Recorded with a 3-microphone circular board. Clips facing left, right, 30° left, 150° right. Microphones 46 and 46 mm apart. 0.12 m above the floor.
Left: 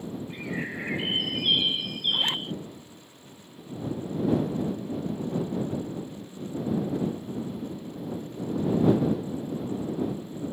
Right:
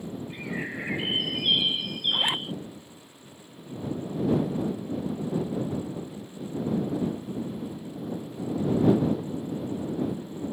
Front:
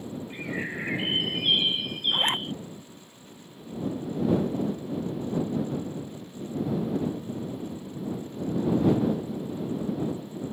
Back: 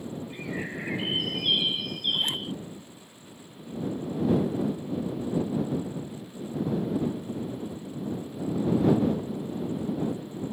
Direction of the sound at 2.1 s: 15° right.